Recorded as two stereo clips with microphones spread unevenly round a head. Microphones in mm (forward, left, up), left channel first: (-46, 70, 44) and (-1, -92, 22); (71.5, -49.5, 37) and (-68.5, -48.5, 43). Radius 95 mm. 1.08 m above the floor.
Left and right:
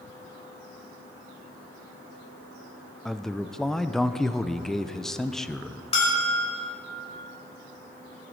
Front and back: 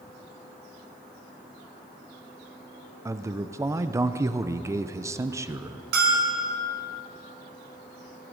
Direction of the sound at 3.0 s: 150° right.